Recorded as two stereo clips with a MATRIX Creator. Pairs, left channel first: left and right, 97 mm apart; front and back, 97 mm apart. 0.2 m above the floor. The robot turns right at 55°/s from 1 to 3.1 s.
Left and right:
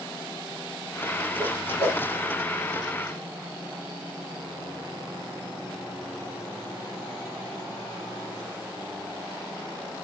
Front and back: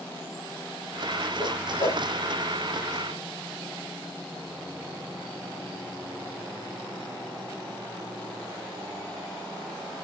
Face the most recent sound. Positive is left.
turn(degrees=110)